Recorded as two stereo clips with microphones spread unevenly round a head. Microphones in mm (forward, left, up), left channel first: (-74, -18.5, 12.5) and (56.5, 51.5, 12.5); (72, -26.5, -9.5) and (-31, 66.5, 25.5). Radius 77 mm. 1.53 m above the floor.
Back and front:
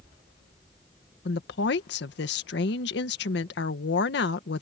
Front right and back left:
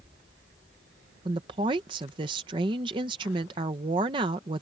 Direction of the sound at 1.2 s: 160° right.